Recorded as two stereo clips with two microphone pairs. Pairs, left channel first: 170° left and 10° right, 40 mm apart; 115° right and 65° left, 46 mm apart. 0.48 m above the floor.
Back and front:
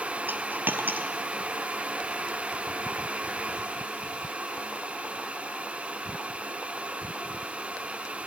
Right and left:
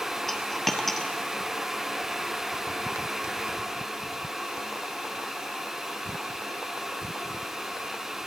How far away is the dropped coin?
About 0.9 m.